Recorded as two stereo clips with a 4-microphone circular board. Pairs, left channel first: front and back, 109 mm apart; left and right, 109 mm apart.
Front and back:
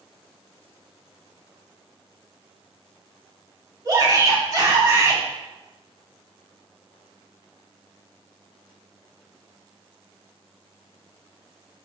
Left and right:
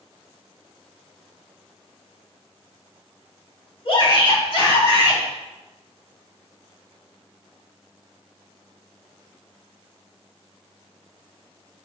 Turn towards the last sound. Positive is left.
turn(degrees=125)